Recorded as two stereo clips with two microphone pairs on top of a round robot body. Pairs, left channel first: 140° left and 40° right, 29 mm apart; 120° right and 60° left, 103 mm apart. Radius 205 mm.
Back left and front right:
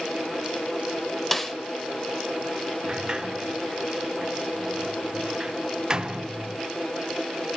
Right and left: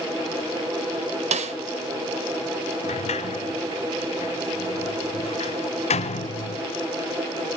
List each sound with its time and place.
1.3 s a snare drum: 55° left, 1.2 m
2.8 s a sliding door: 105° right, 0.7 m